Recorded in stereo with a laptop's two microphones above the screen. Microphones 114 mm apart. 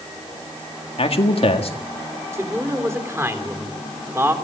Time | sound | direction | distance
1.0 | a man speaking | 55° left (ahead or behind) | 1.8 m
2.3 | a man speaking | 25° right (ahead or behind) | 3.5 m